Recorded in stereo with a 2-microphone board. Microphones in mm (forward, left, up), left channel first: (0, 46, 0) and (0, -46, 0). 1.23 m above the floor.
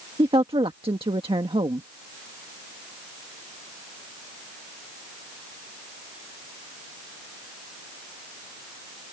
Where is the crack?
I don't hear a crack.